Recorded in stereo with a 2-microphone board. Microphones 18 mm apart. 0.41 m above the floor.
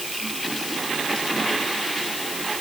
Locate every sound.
Only background noise.